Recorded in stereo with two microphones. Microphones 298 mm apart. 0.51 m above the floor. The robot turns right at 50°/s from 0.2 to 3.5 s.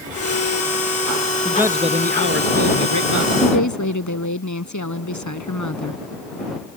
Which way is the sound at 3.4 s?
70° left (ahead or behind).